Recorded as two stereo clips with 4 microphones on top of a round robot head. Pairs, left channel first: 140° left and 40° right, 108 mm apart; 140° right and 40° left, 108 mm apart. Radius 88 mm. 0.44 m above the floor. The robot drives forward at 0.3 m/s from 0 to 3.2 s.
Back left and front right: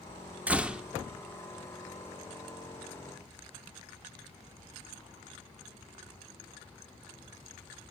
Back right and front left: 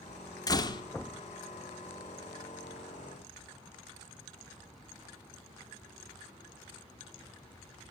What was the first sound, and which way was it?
A door slam, 110° right.